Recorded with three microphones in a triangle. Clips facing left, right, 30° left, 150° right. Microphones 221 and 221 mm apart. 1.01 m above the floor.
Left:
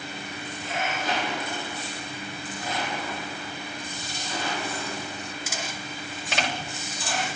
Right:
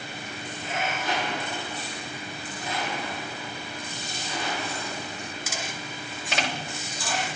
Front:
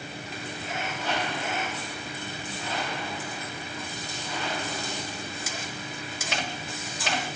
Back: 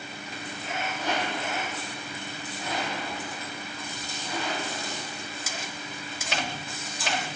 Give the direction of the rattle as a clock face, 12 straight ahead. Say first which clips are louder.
Left 1 dB, back 1 dB; 7 o'clock.